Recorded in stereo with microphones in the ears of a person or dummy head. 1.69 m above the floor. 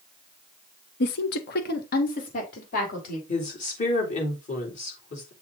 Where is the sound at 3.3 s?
40° left (ahead or behind), 3.5 m.